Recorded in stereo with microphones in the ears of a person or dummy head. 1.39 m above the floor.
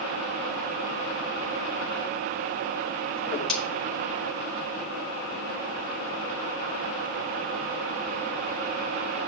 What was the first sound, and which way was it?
A whoosh, 10° left (ahead or behind).